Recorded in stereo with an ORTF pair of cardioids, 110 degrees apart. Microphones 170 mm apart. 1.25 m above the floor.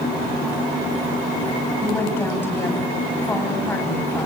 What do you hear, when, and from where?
1.8 s a woman speaking: 10° left, 8.5 m